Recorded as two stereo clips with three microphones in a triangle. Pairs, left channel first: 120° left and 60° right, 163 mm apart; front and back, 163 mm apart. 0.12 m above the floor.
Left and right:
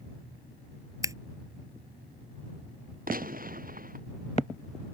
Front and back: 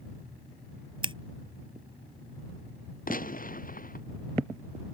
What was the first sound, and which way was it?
Scissors, 125° right.